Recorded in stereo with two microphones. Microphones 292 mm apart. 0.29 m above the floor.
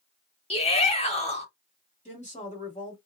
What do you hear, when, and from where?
0.5 s a shout: 20° left (ahead or behind), 0.9 m
2.0 s a woman speaking: 25° left (ahead or behind), 1.3 m